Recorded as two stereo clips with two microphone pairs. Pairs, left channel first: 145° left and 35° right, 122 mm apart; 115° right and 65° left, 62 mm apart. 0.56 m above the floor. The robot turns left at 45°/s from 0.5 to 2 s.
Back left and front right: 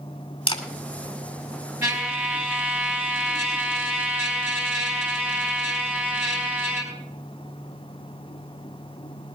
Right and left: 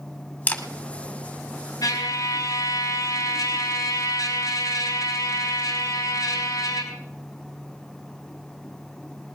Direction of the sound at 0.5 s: 175° right.